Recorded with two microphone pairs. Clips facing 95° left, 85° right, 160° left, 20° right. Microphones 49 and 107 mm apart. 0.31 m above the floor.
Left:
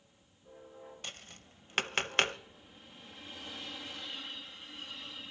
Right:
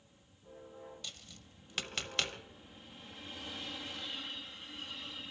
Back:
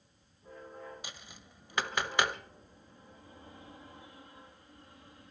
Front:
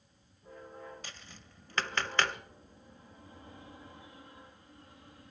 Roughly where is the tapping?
Left.